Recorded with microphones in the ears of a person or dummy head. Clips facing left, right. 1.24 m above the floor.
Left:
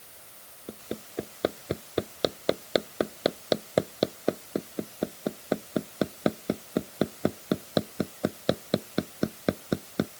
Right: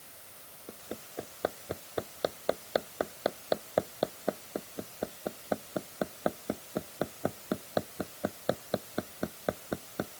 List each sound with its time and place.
0.7 s hammering: 35° left (ahead or behind)